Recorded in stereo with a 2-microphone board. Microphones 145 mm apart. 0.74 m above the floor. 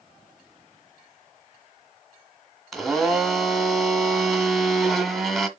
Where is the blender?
Centre (ahead or behind), 1.5 m.